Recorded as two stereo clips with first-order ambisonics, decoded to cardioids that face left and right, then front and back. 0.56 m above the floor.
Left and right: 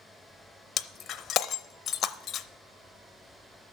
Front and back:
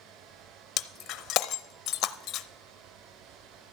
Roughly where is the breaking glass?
Ahead left.